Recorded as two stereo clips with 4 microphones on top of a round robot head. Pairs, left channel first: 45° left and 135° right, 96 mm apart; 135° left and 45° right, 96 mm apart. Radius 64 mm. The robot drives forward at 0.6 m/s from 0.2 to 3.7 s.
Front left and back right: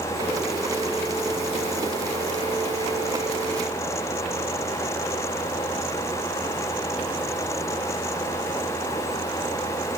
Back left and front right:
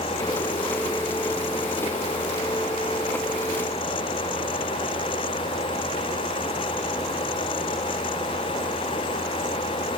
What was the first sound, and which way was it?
Only background noise.